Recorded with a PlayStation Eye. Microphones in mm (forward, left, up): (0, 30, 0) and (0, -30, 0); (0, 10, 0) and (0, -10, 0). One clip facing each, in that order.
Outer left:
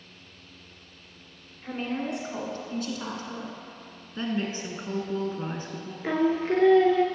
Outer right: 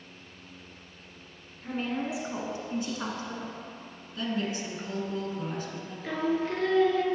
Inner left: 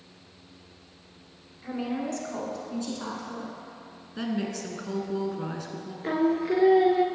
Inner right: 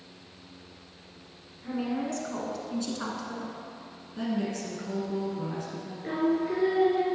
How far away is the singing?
About 0.7 m.